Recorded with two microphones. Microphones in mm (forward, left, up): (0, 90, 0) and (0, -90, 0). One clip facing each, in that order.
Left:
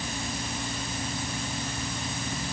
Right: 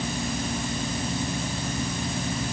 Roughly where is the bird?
No bird in this recording.